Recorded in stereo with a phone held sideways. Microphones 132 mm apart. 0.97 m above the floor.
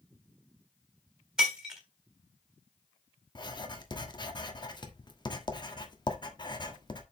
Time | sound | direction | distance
1.4 | breaking glass | 5° right (ahead or behind) | 3 m
3.4 | writing | 35° left (ahead or behind) | 1.3 m